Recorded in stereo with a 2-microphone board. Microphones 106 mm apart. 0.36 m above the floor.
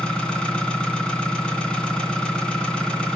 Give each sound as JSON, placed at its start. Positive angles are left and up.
{"t": 0.0, "sound": "an engine running", "side_deg": 10, "distance_m": 2.0}